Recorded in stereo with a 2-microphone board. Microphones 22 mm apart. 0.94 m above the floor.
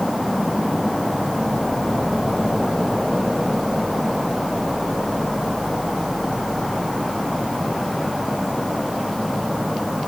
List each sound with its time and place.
Only background noise.